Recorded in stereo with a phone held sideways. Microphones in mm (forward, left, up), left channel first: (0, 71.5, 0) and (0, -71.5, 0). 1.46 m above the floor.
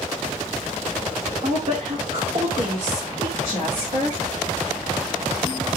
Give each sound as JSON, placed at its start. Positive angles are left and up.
{"t": 1.4, "sound": "a woman speaking", "side_deg": -40, "distance_m": 1.8}